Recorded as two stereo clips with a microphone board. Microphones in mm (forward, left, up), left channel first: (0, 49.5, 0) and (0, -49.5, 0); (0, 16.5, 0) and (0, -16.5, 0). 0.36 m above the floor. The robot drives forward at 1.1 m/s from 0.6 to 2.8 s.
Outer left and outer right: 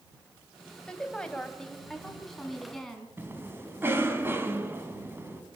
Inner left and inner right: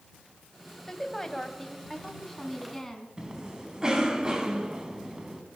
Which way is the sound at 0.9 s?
10° left (ahead or behind).